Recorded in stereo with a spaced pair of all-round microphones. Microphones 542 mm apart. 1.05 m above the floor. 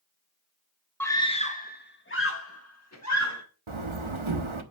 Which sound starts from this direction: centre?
A scream, at 1.0 s.